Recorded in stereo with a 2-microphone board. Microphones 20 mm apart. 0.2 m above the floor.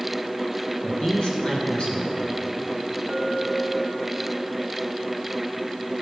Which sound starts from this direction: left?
A man speaking, at 0.8 s.